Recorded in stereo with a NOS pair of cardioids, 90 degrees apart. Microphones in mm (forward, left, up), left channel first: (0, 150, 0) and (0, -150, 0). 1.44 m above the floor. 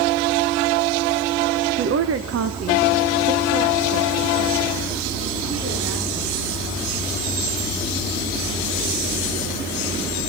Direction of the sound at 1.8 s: 45° right.